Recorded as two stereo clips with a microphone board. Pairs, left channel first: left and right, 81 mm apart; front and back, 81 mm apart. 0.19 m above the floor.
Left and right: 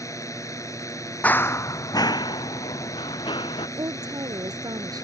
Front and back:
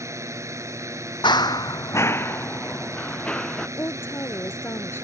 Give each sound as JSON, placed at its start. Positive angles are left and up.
{"t": 0.0, "sound": "a drone", "azimuth_deg": 135}
{"t": 1.2, "sound": "running footsteps", "azimuth_deg": 20}
{"t": 3.8, "sound": "a woman speaking", "azimuth_deg": -60}